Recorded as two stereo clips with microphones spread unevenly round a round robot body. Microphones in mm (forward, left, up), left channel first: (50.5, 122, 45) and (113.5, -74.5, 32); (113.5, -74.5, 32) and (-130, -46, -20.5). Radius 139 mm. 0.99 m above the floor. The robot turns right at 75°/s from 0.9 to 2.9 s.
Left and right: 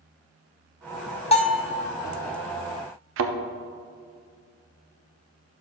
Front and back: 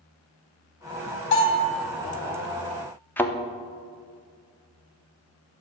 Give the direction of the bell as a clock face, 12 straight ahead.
10 o'clock.